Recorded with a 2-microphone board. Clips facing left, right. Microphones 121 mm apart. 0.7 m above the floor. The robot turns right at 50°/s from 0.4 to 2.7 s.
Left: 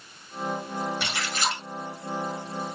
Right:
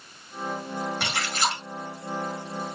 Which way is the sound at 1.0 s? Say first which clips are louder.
Right 2 dB; 65° right.